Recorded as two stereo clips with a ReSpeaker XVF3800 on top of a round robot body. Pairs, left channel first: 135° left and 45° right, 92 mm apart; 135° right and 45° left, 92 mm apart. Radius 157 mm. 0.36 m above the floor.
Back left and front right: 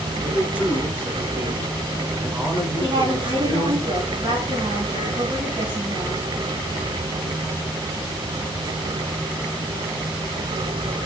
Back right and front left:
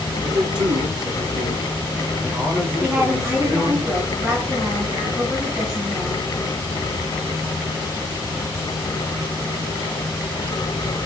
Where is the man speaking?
30° left, 5 m; by 3.8 s 15° right, 5.5 m.